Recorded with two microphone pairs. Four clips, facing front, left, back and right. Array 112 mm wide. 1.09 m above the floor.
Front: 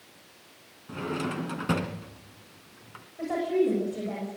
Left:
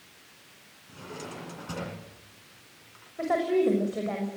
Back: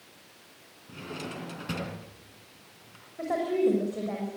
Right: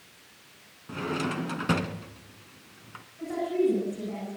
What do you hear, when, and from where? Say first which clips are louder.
0.9 s a drawer: right 10 dB, front 7 dB; 60° right, 3 m
3.2 s a woman speaking: left 2 dB, even; 95° left, 6 m